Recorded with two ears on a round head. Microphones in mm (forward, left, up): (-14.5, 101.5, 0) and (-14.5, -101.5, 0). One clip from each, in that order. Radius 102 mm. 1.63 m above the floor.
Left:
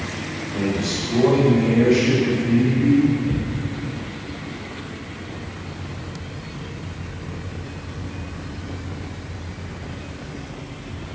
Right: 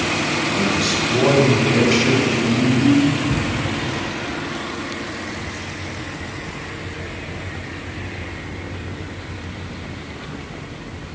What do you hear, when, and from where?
0.5 s a man speaking: 65° right (ahead or behind), 5 m; by 3.1 s 85° right, 3.5 m
3.3 s a thud: 45° left (ahead or behind), 1.9 m